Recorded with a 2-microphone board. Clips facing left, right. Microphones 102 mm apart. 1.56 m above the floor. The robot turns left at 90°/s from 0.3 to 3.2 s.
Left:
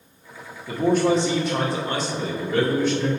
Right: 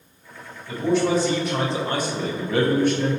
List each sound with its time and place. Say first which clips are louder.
0.7 s a man speaking: left 1 dB; 70° left, 1.4 m; by 3.1 s 145° right, 1.4 m